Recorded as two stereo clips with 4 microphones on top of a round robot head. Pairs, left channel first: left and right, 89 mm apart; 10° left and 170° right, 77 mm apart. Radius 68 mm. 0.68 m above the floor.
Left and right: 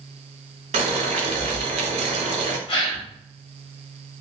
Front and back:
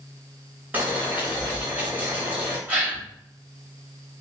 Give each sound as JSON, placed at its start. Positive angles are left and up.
{"t": 0.7, "sound": "boiling", "azimuth_deg": -95, "distance_m": 0.9}
{"t": 2.7, "sound": "a gasp", "azimuth_deg": 120, "distance_m": 2.5}